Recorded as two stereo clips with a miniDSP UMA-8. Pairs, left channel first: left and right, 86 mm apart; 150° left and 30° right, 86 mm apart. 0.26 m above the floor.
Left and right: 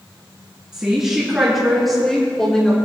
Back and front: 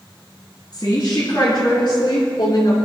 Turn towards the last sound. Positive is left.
turn(degrees=170)